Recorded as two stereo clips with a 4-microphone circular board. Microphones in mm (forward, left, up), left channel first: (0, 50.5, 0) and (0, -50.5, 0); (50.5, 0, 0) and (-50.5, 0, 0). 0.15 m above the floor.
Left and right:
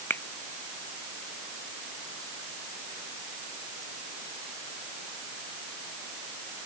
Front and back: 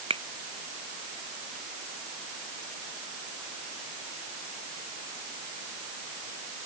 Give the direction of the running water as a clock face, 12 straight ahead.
I don't hear running water.